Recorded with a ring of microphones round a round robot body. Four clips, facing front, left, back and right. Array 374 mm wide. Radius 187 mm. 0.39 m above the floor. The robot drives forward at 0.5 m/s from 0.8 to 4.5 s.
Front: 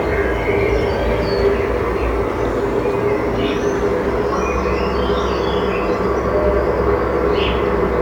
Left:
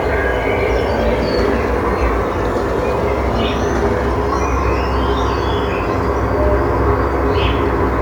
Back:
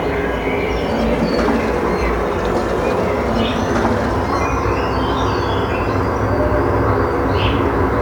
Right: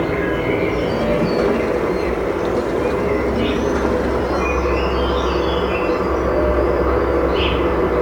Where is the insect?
75° left, 1.2 m; by 8.0 s 150° left, 2.0 m.